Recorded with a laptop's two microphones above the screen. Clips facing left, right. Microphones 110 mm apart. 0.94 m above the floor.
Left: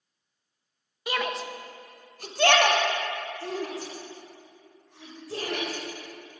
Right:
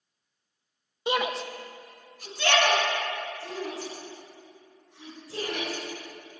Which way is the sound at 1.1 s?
25° right (ahead or behind).